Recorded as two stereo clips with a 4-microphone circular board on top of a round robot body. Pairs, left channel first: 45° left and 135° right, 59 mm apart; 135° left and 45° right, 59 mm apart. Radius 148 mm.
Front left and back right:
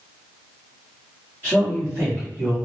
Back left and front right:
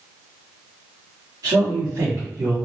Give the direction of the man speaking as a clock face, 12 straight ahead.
3 o'clock.